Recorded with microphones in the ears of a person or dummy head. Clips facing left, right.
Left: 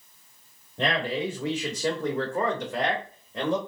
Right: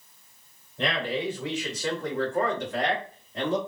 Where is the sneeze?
I don't hear a sneeze.